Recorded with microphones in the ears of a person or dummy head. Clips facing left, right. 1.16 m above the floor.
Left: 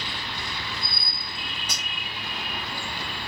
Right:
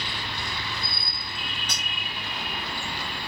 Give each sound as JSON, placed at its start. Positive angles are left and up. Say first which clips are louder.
{"t": 1.7, "sound": "cutlery clinking", "louder": "even", "side_deg": 5, "distance_m": 0.5}